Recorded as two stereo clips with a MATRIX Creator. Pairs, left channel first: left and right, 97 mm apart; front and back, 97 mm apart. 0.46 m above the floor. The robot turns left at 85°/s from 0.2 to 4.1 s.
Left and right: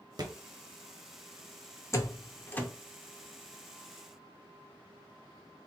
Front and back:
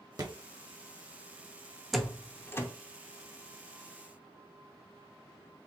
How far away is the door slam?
About 0.6 m.